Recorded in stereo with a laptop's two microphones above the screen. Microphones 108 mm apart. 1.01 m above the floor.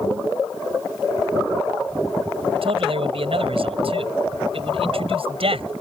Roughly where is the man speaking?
Right.